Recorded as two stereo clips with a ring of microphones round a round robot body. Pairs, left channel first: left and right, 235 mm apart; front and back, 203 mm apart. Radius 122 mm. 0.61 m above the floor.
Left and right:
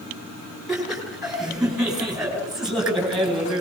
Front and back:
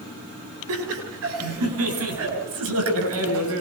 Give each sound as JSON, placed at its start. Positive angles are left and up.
{"t": 0.7, "sound": "laughter", "azimuth_deg": 180, "distance_m": 9.0}